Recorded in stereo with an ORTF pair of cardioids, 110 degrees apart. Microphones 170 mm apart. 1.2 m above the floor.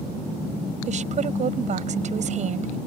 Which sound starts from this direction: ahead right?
A woman speaking, at 0.9 s.